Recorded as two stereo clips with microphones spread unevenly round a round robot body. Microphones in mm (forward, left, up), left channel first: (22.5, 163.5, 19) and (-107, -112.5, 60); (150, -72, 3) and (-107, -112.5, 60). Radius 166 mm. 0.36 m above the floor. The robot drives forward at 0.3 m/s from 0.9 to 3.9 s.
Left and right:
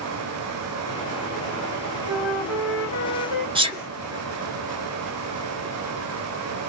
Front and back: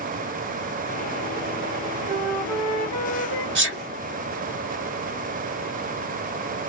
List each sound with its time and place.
2.1 s a flute: 155° right, 1.7 m; by 3.5 s 160° right, 2 m
3.5 s a sneeze: 170° left, 0.9 m; by 3.8 s 175° left, 0.9 m